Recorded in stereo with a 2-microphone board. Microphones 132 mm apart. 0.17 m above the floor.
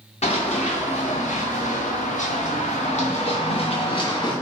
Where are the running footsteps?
55° left (ahead or behind), 1.5 m; by 4.3 s 35° left (ahead or behind), 1.5 m.